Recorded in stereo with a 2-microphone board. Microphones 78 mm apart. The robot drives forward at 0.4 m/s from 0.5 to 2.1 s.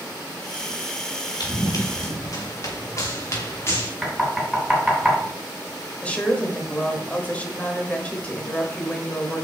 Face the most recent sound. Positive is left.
turn(degrees=20)  # may be behind; listen again after turning